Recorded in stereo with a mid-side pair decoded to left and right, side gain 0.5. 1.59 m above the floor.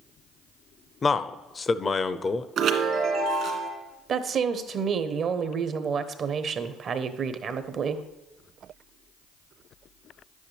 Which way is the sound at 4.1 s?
50° right.